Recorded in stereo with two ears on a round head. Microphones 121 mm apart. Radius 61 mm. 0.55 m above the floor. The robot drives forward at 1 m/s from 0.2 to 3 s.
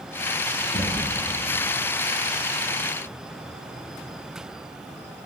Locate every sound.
0.7 s knocking: 60° left (ahead or behind), 10 m